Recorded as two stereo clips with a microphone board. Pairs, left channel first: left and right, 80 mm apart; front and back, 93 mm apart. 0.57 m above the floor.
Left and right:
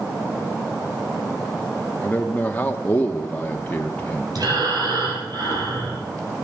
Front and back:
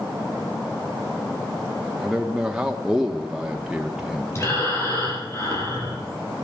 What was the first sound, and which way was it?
A man speaking, 110° left.